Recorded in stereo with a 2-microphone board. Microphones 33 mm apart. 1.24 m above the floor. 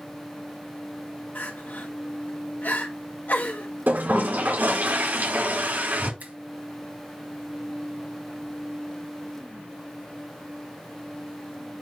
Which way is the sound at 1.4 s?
75° left (ahead or behind).